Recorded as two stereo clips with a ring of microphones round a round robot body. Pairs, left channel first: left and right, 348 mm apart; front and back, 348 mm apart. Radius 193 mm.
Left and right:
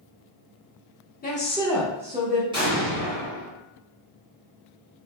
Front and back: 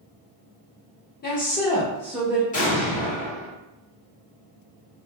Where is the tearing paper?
I don't hear tearing paper.